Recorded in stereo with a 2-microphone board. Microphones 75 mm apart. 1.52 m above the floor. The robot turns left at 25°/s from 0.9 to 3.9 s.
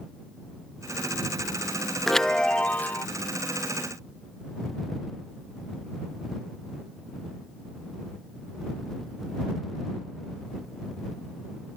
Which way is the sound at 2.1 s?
5° left (ahead or behind).